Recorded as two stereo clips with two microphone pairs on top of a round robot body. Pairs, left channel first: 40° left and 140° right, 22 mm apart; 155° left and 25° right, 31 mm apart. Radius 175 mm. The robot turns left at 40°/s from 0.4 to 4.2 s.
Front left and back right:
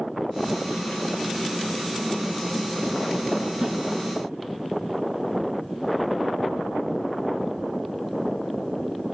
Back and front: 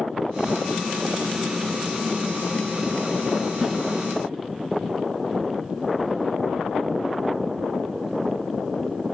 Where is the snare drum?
95° right, 1.2 m; by 3.8 s 105° right, 1.2 m.